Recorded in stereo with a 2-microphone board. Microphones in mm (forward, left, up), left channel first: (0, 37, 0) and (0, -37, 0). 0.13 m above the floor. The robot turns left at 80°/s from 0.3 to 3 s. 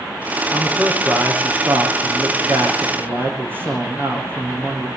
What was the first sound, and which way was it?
A man speaking, 45° left.